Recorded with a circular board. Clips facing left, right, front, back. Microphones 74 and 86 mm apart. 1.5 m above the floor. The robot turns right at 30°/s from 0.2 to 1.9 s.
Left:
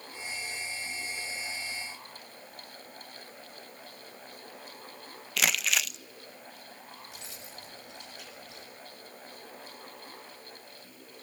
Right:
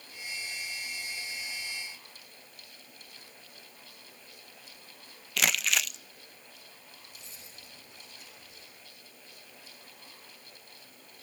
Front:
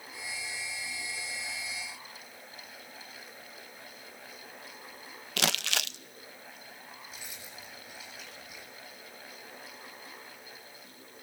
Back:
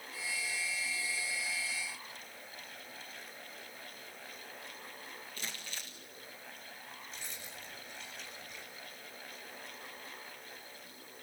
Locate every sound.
5.4 s crumpling: straight ahead, 0.5 m
7.1 s keys jangling: 85° left, 7.5 m